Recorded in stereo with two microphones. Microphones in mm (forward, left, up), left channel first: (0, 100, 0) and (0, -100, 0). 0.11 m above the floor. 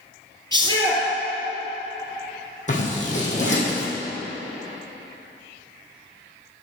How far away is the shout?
About 2.5 m.